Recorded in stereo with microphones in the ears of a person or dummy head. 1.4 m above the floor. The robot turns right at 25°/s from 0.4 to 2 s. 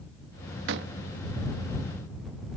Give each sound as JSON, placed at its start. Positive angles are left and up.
{"t": 0.7, "sound": "a door slam", "side_deg": -70}